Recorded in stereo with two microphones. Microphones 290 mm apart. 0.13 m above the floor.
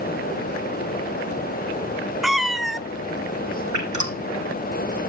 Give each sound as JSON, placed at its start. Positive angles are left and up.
{"t": 2.2, "sound": "a cat meowing", "side_deg": 0, "distance_m": 0.6}
{"t": 3.7, "sound": "dripping", "side_deg": -80, "distance_m": 6.0}